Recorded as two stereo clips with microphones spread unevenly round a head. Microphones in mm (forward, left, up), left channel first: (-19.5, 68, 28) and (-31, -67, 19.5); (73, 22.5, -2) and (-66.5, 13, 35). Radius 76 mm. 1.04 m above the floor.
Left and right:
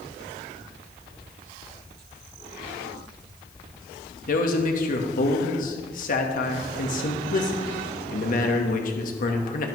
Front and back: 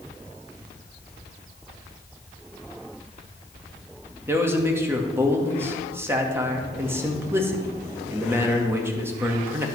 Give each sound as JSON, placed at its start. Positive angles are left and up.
{"t": 4.3, "sound": "a man speaking", "azimuth_deg": 105, "distance_m": 1.5}